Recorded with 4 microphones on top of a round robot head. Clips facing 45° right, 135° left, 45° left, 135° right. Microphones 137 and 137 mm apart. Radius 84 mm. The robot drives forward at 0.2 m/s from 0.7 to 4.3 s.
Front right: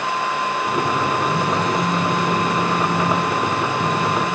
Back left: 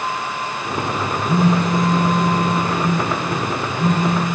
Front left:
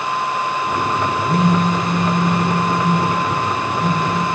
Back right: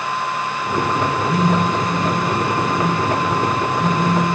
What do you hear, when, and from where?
1.3 s a phone buzzing: 140° left, 1.3 m; by 4.3 s 155° left, 1.7 m